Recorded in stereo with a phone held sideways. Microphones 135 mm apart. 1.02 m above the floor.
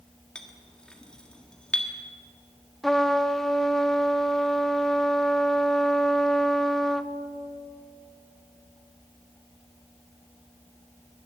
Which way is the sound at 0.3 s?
5° left (ahead or behind).